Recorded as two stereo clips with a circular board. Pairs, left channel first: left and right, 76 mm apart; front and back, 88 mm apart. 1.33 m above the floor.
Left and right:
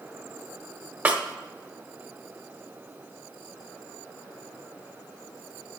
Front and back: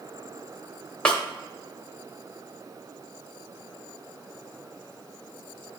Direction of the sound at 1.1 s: 65° right.